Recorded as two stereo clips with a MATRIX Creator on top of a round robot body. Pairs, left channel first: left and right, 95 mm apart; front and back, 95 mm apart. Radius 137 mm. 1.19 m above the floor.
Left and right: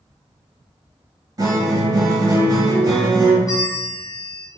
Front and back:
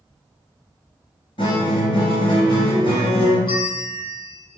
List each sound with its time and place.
1.4 s a guitar: 40° right, 1.2 m
3.5 s a bell: 35° left, 1.0 m